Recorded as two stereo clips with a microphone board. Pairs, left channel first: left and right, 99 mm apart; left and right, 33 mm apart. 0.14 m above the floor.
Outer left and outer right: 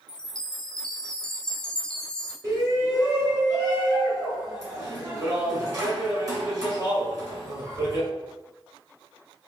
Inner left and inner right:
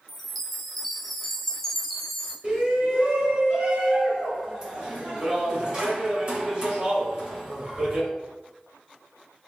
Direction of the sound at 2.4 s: 35° right (ahead or behind).